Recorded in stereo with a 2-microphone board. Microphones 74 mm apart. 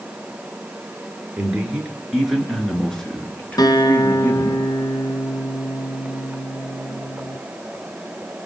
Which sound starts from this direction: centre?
A man speaking, at 1.4 s.